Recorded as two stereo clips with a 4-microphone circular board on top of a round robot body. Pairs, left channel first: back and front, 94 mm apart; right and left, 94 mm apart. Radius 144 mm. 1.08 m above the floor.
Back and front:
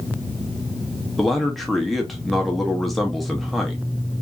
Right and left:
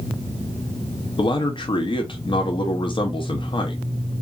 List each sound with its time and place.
1.2 s a man speaking: 90° right, 0.7 m